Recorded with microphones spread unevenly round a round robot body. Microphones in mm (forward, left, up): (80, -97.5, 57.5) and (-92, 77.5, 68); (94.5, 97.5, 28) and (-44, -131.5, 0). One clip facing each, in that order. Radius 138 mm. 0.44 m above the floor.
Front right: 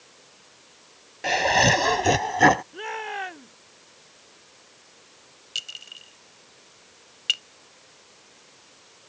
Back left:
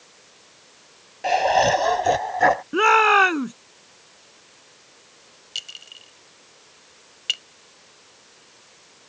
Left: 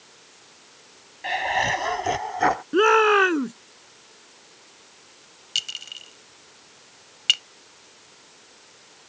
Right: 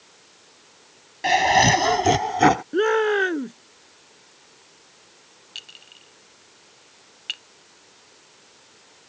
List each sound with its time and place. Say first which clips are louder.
1.2 s laughter: back left 3 dB, right 8 dB; 110° right; by 2.6 s 90° right
2.7 s a shout: back left 15 dB, left 1 dB; 135° left
5.5 s a clink: back left 1 dB, left 2 dB; 40° left